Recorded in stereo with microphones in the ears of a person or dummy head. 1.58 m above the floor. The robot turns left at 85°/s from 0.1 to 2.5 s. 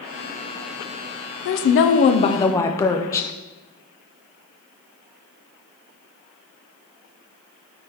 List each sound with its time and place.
1.4 s a woman speaking: 105° left, 0.5 m; by 3.3 s 15° left, 0.5 m